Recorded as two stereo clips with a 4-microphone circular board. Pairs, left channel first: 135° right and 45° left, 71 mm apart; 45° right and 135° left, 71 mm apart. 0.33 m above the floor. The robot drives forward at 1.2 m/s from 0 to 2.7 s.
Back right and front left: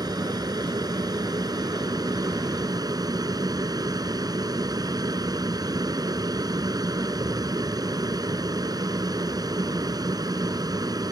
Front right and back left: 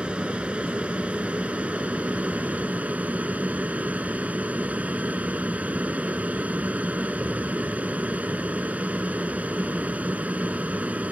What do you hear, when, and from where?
0.0 s an aircraft: 60° left; by 11.1 s 65° left